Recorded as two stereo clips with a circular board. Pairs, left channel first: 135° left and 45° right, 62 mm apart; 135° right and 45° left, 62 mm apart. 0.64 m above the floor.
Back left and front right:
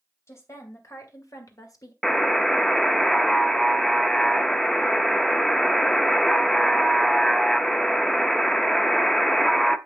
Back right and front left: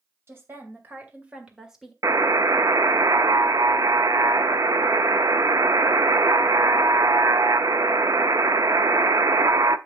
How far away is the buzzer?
About 0.5 m.